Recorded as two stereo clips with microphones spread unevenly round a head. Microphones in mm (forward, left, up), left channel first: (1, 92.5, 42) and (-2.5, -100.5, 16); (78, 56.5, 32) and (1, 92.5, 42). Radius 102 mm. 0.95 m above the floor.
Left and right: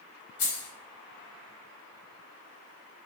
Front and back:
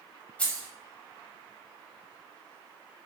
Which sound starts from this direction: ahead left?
Keys jangling, at 0.4 s.